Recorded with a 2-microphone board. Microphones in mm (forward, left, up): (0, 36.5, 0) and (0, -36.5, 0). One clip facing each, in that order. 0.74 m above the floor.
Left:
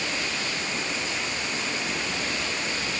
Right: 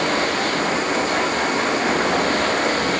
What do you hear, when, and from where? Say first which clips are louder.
0.0 s running water: right 11 dB; 55° right (ahead or behind)